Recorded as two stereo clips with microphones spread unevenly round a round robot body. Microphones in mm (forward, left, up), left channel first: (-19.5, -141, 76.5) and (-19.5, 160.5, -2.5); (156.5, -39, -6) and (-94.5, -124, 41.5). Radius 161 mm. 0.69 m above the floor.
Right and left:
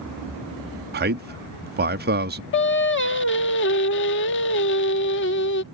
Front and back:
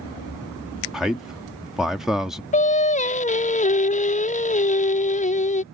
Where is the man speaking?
100° left.